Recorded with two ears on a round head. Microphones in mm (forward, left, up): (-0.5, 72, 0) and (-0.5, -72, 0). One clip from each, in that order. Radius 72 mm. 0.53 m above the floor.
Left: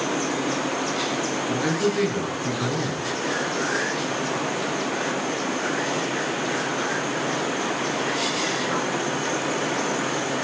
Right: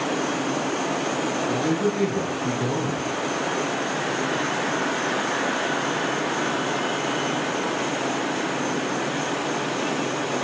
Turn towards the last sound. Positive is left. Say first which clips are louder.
# left 1 dB
turn(degrees=45)  # may be behind; listen again after turning